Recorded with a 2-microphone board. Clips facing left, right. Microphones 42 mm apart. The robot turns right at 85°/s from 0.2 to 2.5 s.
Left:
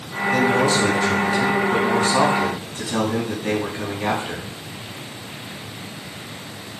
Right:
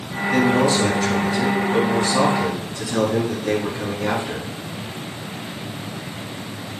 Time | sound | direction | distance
0.3 | a man speaking | 45° right | 4 m